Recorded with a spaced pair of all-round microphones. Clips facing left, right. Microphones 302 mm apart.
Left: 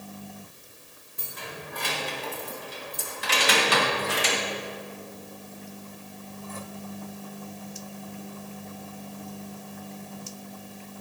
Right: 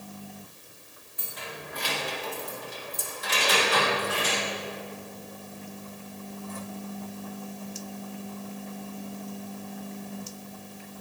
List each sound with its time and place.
1.2 s keys jangling: 55° left (ahead or behind), 2 m; by 4.4 s 80° left, 1.2 m